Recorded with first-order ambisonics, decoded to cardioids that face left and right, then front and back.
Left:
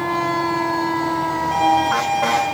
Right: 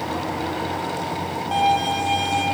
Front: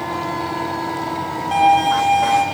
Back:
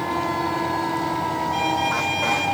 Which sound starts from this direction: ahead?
A violin, at 1.5 s.